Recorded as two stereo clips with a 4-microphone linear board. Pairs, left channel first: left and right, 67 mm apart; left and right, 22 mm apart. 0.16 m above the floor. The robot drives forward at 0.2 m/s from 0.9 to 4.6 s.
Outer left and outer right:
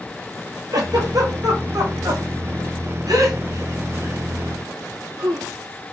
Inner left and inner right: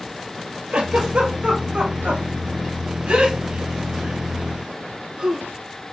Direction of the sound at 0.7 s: 70° right (ahead or behind).